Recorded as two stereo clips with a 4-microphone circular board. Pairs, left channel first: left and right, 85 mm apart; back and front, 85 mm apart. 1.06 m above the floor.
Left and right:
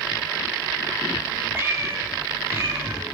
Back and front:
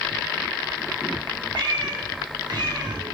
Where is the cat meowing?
30° right, 5 m.